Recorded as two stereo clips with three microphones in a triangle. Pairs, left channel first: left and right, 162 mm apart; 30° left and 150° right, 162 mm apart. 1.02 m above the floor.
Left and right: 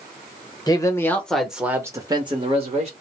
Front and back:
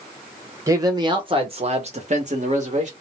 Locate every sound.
0.7 s a man speaking: 150° left, 1.0 m; by 2.9 s 125° right, 1.2 m